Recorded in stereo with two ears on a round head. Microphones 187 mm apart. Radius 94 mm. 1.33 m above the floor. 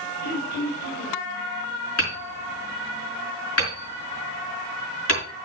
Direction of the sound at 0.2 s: 60° left (ahead or behind).